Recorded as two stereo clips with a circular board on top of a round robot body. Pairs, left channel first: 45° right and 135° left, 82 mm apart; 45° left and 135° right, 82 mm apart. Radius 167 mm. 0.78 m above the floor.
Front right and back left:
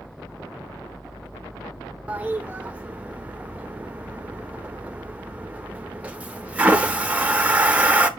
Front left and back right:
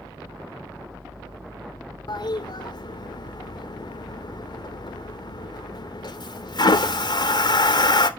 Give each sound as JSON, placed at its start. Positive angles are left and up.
{"t": 2.1, "sound": "a toilet flushing", "azimuth_deg": 65, "distance_m": 1.1}